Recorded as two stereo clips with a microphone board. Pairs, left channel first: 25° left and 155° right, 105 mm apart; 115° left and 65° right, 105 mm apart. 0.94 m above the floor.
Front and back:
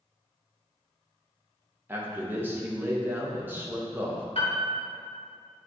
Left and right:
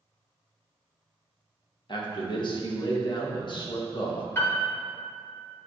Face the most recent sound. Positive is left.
turn(degrees=45)